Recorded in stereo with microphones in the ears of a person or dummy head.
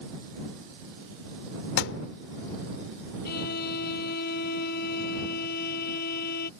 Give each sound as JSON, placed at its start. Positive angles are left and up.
{"t": 1.8, "sound": "a thud", "side_deg": 70}
{"t": 3.2, "sound": "a violin", "side_deg": 50}